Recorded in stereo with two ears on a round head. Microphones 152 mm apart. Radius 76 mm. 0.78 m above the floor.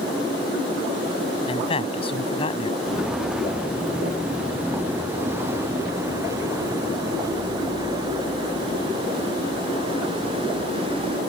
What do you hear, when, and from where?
1.5 s a man speaking: 35° left (ahead or behind)
2.8 s footsteps: 5° right (ahead or behind); by 11.2 s 35° right (ahead or behind)